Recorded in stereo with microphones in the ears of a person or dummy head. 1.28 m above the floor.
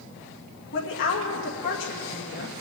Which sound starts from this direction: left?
A woman speaking, at 0.7 s.